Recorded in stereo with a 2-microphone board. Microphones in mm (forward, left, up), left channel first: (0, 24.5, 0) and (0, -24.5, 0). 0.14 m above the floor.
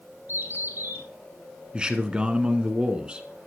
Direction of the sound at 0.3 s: 50° right (ahead or behind).